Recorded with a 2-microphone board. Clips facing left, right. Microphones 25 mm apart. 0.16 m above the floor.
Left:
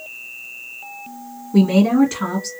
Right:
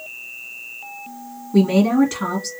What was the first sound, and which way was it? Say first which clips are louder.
A woman speaking: left 1 dB; centre (ahead or behind).